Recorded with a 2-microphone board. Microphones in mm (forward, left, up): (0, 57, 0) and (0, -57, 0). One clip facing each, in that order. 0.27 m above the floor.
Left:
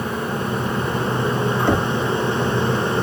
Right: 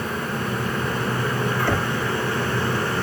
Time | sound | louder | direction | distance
1.7 | knocking | left 4 dB | 20° left (ahead or behind) | ?